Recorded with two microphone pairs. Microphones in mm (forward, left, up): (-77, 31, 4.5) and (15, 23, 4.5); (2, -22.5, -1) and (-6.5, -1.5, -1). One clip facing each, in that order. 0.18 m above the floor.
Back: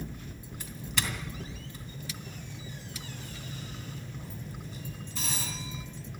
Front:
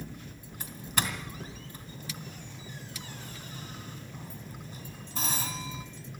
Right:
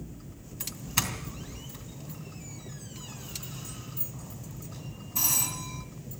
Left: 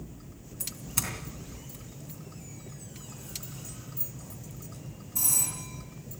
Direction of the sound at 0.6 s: 25° right.